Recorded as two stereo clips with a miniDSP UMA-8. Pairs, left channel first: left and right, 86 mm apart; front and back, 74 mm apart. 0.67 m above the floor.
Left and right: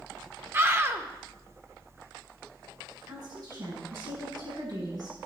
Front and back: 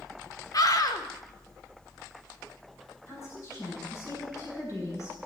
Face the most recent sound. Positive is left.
turn(degrees=-50)